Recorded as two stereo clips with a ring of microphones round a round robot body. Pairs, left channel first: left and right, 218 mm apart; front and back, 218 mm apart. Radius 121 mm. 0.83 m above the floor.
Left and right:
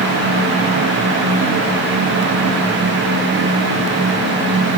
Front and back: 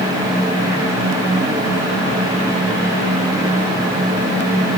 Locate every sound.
Only background noise.